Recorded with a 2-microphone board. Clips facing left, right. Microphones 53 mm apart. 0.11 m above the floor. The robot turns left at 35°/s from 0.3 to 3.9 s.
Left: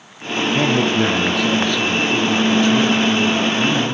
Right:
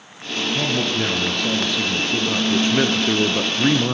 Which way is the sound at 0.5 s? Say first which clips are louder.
Left 6 dB; 35° left.